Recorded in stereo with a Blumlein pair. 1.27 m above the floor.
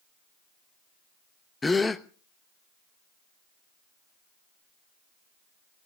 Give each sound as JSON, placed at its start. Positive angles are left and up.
{"t": 1.6, "sound": "a gasp", "azimuth_deg": 10, "distance_m": 0.9}